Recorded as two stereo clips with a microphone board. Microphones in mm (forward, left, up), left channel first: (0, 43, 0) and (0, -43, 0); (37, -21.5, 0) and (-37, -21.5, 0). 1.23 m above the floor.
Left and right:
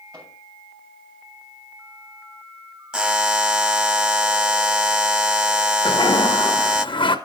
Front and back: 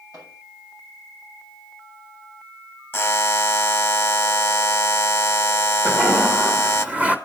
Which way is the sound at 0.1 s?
140° right.